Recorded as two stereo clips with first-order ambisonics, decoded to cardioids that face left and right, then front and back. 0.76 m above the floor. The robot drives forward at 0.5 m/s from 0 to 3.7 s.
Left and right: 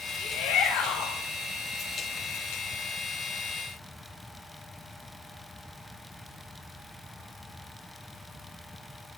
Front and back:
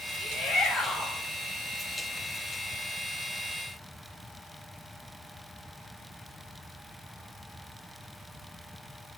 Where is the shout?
70° left, 3 m; by 1.2 s 75° left, 3 m.